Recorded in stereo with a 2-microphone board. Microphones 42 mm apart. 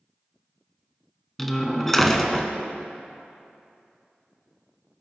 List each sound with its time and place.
1.4 s a door slam: 10° left (ahead or behind), 0.8 m